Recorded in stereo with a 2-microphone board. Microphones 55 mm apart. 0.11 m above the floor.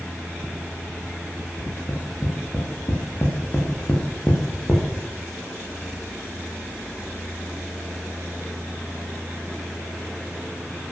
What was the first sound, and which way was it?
Tapping, 40° left (ahead or behind).